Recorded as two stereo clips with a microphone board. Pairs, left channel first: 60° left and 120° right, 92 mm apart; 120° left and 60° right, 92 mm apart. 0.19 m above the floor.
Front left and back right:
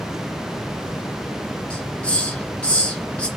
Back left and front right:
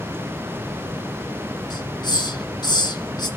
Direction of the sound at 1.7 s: 135° left.